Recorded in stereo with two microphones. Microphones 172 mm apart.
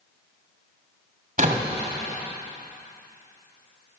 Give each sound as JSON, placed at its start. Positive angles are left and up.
{"t": 1.4, "sound": "a door slam", "side_deg": -55, "distance_m": 2.0}